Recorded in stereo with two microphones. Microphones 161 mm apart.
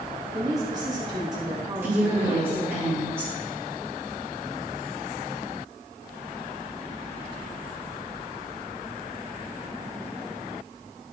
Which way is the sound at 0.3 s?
25° right (ahead or behind).